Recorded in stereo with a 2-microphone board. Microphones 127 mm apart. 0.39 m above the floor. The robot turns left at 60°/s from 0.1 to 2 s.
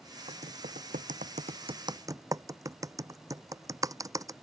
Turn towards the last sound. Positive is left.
turn(degrees=-25)  # may be behind; listen again after turning